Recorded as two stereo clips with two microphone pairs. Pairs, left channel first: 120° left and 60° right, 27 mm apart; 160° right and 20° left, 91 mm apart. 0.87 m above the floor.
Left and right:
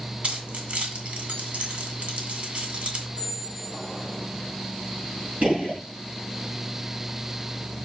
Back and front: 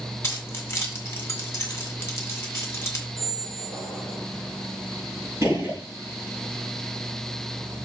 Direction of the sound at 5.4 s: 40° right.